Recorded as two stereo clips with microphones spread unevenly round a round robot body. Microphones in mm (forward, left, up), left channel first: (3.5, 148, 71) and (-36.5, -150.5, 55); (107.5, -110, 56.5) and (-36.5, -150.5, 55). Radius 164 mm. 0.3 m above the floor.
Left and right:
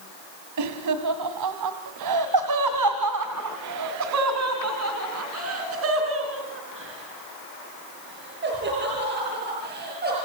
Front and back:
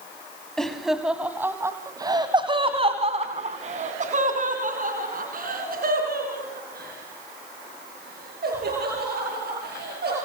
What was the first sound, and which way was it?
Laughter, 70° right.